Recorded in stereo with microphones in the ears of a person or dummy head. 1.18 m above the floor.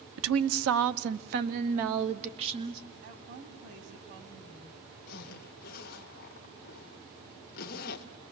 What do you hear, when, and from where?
0.2 s a woman speaking: 75° right (ahead or behind), 1.2 m; by 2.8 s 30° right (ahead or behind), 2 m
3.0 s a woman speaking: 65° right (ahead or behind), 4 m
5.1 s a zipper: 50° left (ahead or behind), 1.5 m